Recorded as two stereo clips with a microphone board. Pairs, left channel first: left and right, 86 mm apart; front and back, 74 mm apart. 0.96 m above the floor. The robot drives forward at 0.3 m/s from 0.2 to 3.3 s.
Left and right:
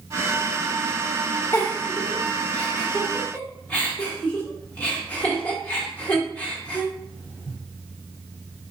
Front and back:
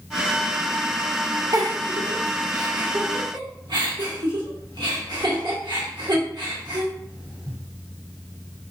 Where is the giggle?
150° left, 0.7 m; by 7.6 s 165° left, 1.1 m.